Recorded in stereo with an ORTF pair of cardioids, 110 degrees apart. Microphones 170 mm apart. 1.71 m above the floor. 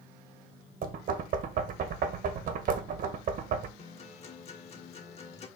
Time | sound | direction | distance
0.8 | knocking | 60° right | 1.6 m
3.8 | a guitar | 40° left | 2 m